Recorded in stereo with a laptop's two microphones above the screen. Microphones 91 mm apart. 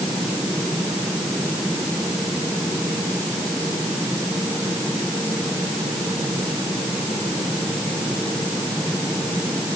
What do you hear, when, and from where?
Only background noise.